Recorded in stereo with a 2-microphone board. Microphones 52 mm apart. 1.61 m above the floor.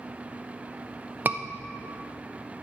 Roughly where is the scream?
Right.